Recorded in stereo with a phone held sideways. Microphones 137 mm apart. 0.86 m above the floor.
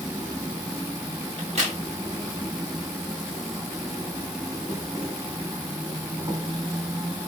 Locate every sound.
0.0 s an insect: 25° right (ahead or behind), 0.8 m
1.4 s a crack: 55° right (ahead or behind), 1.5 m